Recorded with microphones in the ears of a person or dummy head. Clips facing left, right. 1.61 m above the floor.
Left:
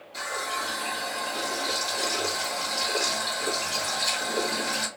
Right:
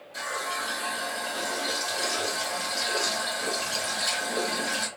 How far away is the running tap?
About 1.6 m.